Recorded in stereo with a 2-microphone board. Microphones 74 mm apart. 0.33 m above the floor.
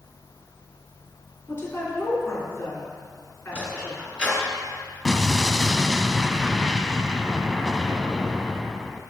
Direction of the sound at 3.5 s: 15° right (ahead or behind).